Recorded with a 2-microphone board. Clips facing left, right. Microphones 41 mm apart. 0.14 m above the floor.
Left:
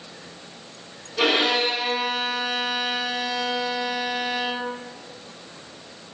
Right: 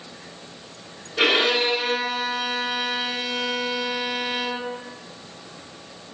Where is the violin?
40° right (ahead or behind), 1.4 m.